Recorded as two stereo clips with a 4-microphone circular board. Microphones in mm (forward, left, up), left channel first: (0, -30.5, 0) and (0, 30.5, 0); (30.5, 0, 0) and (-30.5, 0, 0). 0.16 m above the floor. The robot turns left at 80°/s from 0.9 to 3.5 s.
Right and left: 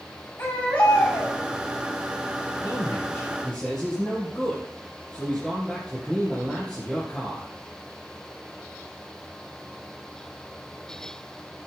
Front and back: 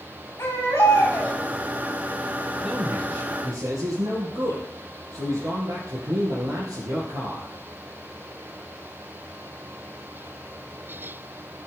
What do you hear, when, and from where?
0.4 s a baby crying: 35° right, 7.5 m; by 1.4 s 75° right, 7.5 m
2.6 s a man speaking: 115° right, 4.5 m; by 7.5 s straight behind, 4.5 m